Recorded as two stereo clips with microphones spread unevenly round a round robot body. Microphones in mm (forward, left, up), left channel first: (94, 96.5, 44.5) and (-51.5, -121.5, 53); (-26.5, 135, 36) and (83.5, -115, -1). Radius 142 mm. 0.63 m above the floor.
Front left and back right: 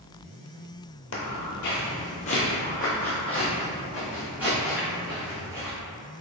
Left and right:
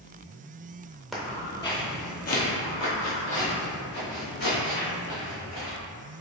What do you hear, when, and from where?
1.1 s footsteps: 35° left, 0.8 m; by 5.8 s 160° left, 2 m